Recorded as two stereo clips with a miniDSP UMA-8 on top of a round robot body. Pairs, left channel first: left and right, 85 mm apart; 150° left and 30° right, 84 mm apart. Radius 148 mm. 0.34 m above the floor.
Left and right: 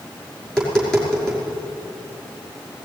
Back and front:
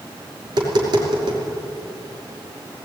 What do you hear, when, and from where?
0.4 s tapping: 5° left, 5.5 m